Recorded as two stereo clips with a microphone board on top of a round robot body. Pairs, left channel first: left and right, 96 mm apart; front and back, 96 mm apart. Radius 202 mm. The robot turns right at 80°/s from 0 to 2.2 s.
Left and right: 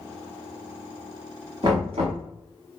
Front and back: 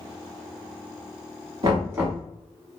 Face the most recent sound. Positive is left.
turn(degrees=-95)